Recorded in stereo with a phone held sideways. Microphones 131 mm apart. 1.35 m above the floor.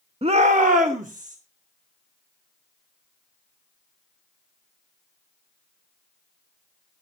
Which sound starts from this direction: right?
A shout, at 0.2 s.